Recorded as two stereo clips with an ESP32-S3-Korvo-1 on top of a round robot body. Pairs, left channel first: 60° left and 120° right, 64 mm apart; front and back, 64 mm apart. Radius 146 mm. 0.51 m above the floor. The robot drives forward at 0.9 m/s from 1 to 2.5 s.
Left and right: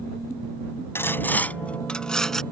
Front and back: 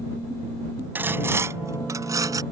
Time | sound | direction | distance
0.9 | sawing | 115° left | ?